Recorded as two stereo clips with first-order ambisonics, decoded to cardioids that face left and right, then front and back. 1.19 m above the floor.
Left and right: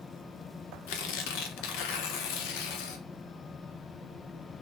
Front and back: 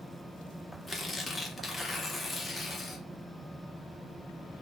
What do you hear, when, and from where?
0.9 s tearing paper: 85° left, 0.6 m